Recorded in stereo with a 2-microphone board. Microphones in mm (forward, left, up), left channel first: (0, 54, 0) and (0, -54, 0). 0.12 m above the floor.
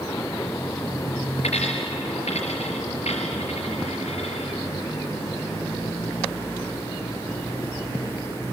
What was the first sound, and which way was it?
A dropped coin, 80° left.